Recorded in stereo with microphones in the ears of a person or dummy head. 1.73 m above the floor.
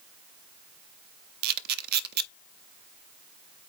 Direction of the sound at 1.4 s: 60° right (ahead or behind).